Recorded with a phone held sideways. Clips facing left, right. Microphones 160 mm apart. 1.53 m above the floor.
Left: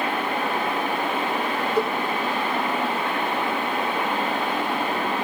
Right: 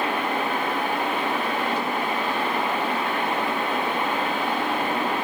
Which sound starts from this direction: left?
A cowbell, at 1.8 s.